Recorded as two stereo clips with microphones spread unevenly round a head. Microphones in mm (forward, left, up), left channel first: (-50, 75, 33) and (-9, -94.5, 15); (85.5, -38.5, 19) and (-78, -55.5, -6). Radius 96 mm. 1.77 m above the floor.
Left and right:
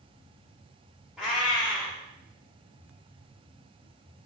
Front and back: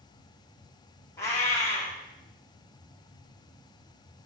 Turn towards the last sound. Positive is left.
turn(degrees=20)